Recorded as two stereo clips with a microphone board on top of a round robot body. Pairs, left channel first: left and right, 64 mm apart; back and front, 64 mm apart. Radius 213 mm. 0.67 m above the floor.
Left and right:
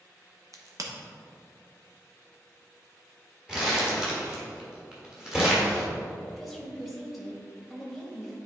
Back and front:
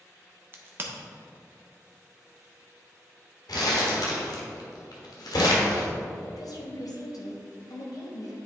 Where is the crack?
55° right, 1.2 m.